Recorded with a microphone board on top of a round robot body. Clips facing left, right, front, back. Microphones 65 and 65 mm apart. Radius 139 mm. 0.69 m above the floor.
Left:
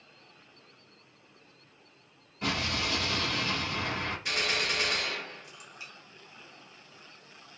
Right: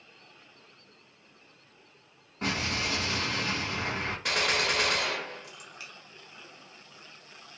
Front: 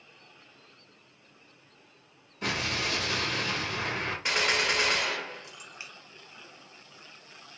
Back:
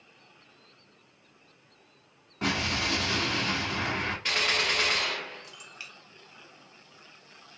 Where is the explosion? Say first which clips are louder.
Right 1 dB, back 2 dB; 145° right, 1.5 m.